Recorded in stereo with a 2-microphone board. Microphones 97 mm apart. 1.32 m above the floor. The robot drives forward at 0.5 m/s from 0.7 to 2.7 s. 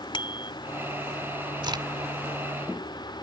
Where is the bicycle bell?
60° left (ahead or behind).